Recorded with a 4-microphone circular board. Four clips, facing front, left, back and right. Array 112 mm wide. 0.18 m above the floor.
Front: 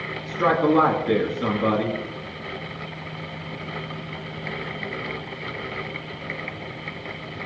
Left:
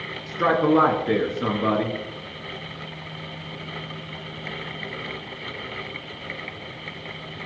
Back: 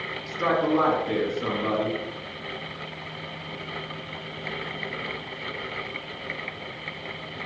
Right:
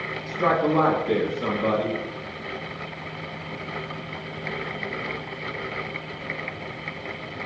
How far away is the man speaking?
About 3 m.